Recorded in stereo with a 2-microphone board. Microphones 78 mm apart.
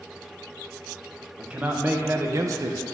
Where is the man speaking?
15° right (ahead or behind), 0.9 m; by 2.9 s 50° right (ahead or behind), 0.7 m.